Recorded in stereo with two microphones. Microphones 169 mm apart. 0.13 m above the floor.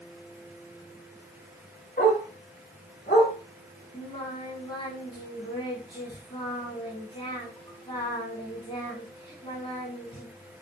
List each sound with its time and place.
2.0 s a dog barking: 55° left (ahead or behind), 5.5 m; by 3.3 s 50° left (ahead or behind), 5 m
3.9 s singing: 30° left (ahead or behind), 5.5 m